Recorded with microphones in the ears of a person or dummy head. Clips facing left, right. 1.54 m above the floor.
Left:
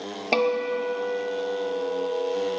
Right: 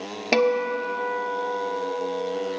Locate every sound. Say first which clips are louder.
0.3 s a guitar: right 2 dB; 20° right (ahead or behind), 0.8 m